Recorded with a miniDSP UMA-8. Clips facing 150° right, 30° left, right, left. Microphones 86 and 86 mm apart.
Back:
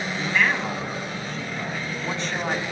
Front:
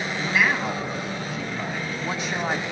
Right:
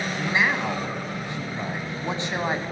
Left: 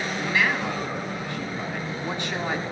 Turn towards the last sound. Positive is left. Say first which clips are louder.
# even, right 1 dB
turn(degrees=-45)